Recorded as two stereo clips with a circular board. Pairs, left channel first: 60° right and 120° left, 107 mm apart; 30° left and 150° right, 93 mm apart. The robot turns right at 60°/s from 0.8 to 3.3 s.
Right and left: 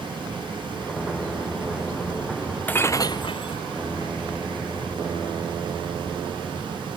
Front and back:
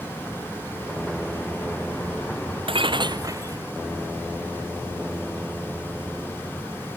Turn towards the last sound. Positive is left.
turn(degrees=-100)